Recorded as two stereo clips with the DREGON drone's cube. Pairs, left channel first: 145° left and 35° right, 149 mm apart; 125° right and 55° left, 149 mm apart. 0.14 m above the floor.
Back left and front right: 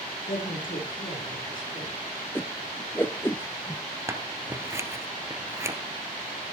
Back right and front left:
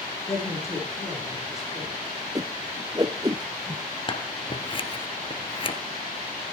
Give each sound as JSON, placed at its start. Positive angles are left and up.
{"t": 0.3, "sound": "a woman speaking", "azimuth_deg": 165, "distance_m": 6.5}
{"t": 2.4, "sound": "a whoosh", "azimuth_deg": 90, "distance_m": 0.6}
{"t": 4.1, "sound": "scissors", "azimuth_deg": -95, "distance_m": 1.3}